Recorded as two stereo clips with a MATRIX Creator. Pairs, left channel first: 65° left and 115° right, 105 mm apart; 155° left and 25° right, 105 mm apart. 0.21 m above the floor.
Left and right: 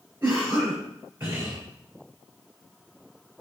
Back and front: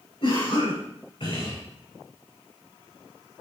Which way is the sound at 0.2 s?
175° left.